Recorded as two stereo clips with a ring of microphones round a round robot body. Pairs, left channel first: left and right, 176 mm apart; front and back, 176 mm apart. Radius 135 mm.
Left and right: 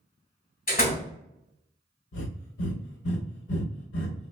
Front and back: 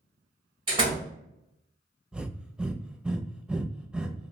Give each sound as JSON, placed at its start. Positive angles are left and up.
{"t": 0.7, "sound": "a door slam", "azimuth_deg": 120, "distance_m": 2.0}
{"t": 2.1, "sound": "breathing", "azimuth_deg": 95, "distance_m": 0.6}